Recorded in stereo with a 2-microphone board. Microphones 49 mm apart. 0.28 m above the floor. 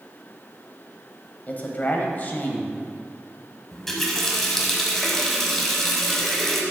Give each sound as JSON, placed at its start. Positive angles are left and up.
{"t": 1.5, "sound": "a man speaking", "side_deg": 35, "distance_m": 1.0}
{"t": 3.7, "sound": "a running tap", "side_deg": 10, "distance_m": 1.1}